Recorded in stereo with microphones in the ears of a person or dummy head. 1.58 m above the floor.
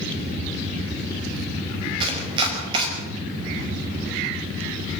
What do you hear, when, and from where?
2.0 s chopping: 35° right (ahead or behind), 5.5 m